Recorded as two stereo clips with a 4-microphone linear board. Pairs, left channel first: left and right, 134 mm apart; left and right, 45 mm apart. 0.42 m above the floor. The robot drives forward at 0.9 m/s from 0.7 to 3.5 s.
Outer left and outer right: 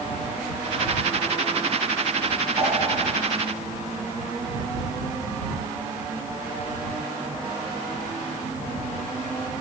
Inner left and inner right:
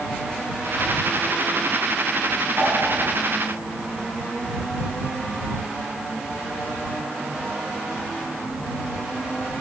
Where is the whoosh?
25° right (ahead or behind), 4 m.